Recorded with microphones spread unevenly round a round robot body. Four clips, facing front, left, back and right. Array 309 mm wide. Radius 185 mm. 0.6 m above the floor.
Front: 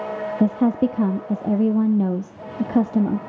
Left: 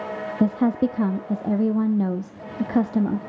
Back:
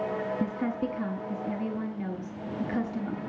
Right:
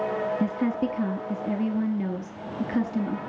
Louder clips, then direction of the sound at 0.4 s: Left 5 dB, front 11 dB; 15° left.